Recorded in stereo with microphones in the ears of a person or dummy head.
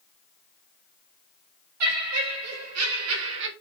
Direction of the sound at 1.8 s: 80° right.